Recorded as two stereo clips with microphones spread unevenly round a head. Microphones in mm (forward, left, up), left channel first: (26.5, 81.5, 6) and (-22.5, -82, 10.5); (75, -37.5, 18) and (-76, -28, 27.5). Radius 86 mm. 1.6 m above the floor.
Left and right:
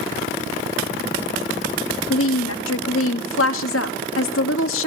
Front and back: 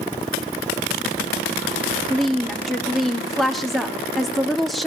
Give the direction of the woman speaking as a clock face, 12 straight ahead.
9 o'clock.